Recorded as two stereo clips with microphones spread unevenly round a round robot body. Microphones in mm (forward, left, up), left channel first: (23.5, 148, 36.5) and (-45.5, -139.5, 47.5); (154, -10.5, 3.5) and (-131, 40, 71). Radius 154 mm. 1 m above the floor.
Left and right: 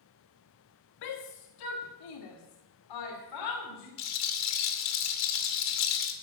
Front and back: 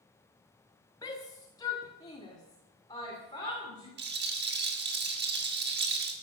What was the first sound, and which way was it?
A shout, 65° left.